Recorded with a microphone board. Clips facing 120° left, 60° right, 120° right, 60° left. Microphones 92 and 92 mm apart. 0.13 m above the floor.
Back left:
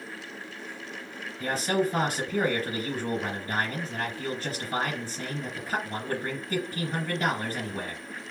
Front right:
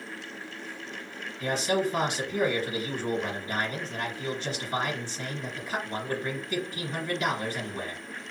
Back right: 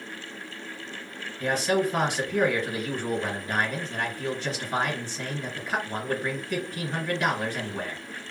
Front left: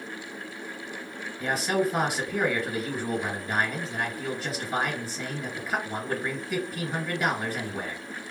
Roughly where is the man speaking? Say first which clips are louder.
Even, back right 1 dB; behind left.